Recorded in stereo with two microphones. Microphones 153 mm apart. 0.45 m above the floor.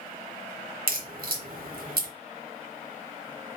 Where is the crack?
70° right (ahead or behind), 0.7 m.